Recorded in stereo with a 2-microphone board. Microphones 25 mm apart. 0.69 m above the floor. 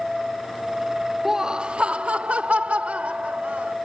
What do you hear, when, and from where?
1.2 s laughter: 15° right (ahead or behind); by 3.8 s 80° right